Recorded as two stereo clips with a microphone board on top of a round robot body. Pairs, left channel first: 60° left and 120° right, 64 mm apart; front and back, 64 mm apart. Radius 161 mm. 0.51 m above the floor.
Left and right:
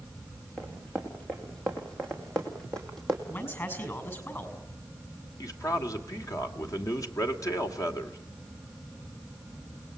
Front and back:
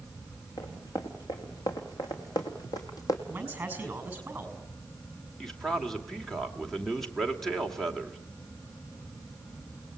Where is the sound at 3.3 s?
110° left, 6 m.